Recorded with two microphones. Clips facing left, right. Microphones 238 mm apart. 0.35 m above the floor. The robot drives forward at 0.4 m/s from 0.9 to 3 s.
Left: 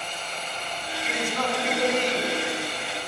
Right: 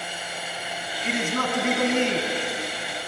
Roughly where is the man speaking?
Right.